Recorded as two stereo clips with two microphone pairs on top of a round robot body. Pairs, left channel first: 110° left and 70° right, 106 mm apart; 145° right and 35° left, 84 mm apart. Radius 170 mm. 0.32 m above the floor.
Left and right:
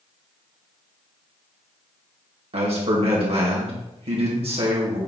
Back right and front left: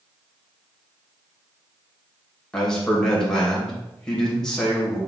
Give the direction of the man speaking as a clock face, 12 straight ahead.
2 o'clock.